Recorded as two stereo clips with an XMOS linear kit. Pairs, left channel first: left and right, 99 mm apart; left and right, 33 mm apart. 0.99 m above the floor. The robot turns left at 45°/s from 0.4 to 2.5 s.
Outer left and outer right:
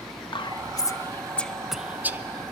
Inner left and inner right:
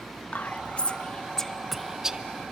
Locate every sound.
0.3 s whispering: 55° left (ahead or behind), 0.9 m; by 2.2 s 25° right (ahead or behind), 0.9 m